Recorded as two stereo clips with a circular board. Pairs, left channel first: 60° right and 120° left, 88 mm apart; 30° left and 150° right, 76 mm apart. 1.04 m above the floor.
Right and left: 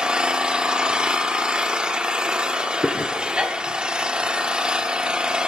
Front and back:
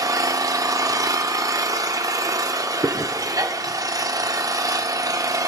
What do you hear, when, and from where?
0.0 s an engine running: 165° right, 0.8 m
2.8 s chewing: 135° right, 0.6 m